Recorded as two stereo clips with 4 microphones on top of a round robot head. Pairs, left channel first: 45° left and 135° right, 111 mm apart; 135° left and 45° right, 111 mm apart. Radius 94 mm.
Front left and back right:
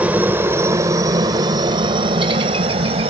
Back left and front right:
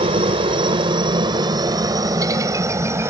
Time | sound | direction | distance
0.0 | a helicopter | 60° right | ?